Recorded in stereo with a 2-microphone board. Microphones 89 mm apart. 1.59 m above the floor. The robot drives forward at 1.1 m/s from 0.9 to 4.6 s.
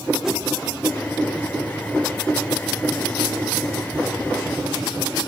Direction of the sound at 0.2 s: 5° right (ahead or behind).